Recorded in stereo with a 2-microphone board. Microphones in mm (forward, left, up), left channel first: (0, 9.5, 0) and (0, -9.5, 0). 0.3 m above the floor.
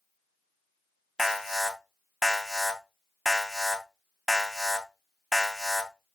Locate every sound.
1.2 s an alarm: 25° right (ahead or behind), 2.5 m